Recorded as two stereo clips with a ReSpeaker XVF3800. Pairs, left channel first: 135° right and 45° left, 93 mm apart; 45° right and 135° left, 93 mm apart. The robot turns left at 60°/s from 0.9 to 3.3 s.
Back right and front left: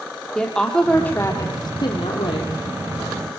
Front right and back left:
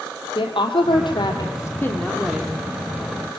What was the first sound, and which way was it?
A woman speaking, 55° right.